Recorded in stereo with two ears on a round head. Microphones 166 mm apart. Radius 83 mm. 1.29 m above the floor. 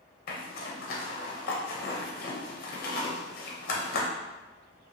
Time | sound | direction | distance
0.3 | a zipper | 50° left (ahead or behind) | 0.6 m